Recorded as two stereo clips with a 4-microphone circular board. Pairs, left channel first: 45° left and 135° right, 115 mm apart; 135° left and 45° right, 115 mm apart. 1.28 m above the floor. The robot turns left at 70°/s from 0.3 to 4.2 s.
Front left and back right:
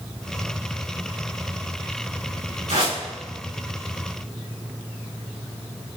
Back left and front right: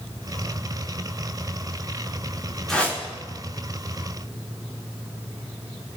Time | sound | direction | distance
2.7 | a whoosh | 135° right | 3 m